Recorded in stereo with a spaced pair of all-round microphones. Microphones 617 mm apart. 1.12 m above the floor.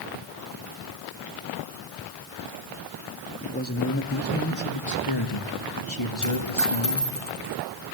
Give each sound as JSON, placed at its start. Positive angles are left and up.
{"t": 3.4, "sound": "a man speaking", "side_deg": 10, "distance_m": 2.5}
{"t": 6.2, "sound": "a dropped coin", "side_deg": 50, "distance_m": 6.5}